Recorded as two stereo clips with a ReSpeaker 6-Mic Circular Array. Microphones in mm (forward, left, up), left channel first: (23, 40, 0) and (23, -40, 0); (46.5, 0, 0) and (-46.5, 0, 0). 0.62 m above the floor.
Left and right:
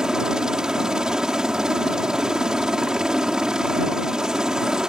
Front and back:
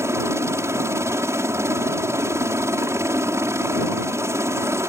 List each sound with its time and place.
0.0 s a helicopter: 165° right